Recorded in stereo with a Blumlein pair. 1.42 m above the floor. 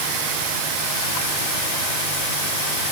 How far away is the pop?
No pop in this recording.